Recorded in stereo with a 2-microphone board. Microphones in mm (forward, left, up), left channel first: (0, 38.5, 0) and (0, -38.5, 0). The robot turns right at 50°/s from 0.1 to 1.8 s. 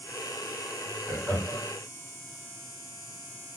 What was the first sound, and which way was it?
Laughter, 25° left (ahead or behind).